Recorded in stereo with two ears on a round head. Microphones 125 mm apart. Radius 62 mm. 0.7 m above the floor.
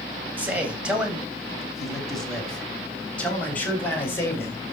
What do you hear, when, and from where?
0.4 s a man speaking: 10° right (ahead or behind), 3.5 m; by 4.6 s 15° left (ahead or behind), 4.5 m